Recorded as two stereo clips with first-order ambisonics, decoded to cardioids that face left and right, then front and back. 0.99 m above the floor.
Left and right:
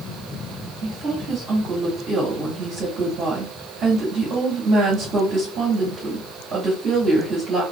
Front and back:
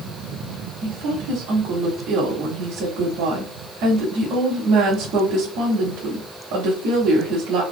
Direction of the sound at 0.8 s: 145° right.